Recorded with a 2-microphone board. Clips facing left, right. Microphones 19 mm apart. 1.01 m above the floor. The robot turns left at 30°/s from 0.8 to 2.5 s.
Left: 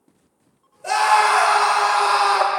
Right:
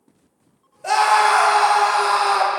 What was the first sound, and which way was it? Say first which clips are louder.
A scream: right 1 dB; 155° right.